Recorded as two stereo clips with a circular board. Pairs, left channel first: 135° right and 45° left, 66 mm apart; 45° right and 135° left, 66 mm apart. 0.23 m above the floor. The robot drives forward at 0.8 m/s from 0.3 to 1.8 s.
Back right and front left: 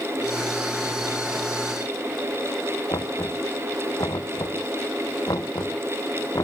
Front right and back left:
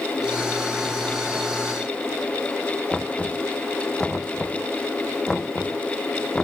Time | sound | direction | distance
2.9 | knocking | 130° right | ?